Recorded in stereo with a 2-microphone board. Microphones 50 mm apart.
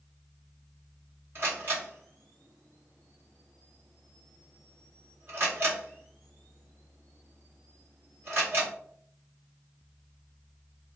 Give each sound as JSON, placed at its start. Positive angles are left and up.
{"t": 1.4, "sound": "a camera shutter", "side_deg": -45, "distance_m": 1.8}